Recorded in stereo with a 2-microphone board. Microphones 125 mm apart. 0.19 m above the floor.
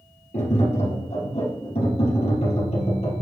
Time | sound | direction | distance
0.3 | tapping | 60° left (ahead or behind) | 3.5 m